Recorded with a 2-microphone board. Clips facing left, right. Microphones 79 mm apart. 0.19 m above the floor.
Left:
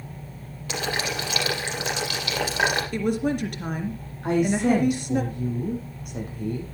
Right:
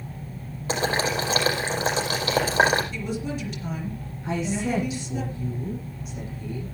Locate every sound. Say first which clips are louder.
0.7 s boiling: right 4 dB; 35° right (ahead or behind), 5 m
2.9 s a woman speaking: left 6 dB; 60° left (ahead or behind), 3.5 m
4.2 s a woman speaking: left 6 dB; 60° left (ahead or behind), 8 m